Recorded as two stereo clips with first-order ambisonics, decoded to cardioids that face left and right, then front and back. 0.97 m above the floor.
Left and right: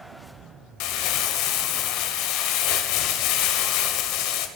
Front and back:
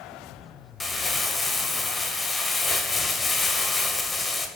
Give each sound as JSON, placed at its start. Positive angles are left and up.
{"t": 0.8, "sound": "crumpling", "azimuth_deg": 80, "distance_m": 1.4}